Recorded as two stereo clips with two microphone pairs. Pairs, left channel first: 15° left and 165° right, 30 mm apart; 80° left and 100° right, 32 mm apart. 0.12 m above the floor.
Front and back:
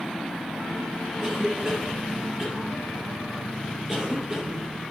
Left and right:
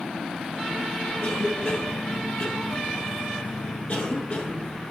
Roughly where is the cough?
Behind left.